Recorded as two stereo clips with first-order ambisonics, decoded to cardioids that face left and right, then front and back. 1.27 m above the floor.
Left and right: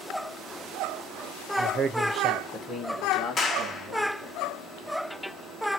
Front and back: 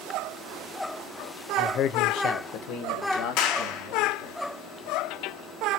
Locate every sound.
1.6 s a man speaking: 60° right, 0.6 m; by 4.4 s 15° left, 2.5 m
3.4 s a clap: 25° left, 1.2 m